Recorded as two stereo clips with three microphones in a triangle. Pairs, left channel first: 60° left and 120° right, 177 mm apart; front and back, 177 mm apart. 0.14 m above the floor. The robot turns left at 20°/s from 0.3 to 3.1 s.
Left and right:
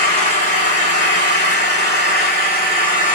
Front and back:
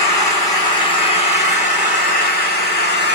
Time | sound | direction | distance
0.0 | an engine running | 75° left | 1.6 m